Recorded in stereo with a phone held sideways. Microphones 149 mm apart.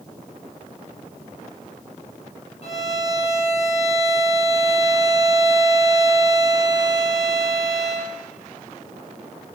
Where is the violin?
45° left (ahead or behind), 2.5 m.